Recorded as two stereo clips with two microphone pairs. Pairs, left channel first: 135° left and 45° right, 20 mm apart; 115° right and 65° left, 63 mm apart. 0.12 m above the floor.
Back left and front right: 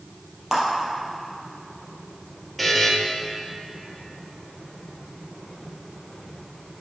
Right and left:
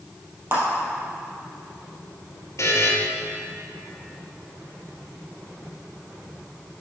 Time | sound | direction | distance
0.5 | a clap | 30° left | 3 m
2.6 | a buzzer | 125° right | 1.6 m